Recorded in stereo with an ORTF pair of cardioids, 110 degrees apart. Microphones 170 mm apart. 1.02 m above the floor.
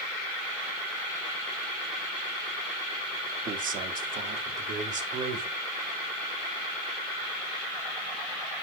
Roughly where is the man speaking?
Ahead right.